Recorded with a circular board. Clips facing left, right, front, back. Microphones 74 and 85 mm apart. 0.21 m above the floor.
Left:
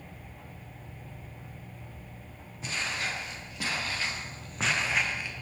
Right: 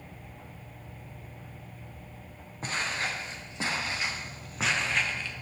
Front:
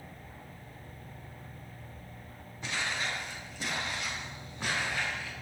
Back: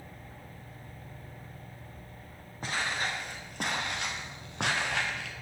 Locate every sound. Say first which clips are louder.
2.6 s footsteps: right 2 dB, back 2 dB; 135° right, 4 m; by 5.3 s 165° left, 3 m